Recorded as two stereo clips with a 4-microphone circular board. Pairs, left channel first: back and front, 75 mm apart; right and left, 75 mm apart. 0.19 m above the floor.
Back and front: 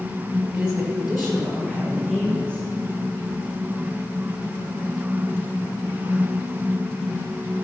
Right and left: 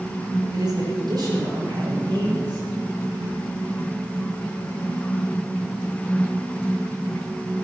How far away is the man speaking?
About 3.5 m.